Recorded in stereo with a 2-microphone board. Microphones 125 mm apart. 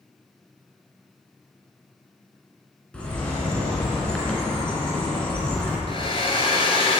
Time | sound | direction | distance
2.9 | a bird | 10° left (ahead or behind) | 3 m
5.9 | a hair dryer | 50° left (ahead or behind) | 1.6 m